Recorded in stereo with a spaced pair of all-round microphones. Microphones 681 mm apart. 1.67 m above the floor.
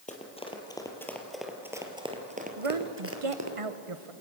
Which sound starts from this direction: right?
A woman speaking, at 2.6 s.